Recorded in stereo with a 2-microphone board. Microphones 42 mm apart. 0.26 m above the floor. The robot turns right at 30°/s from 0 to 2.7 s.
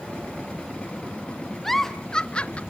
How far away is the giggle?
About 0.7 m.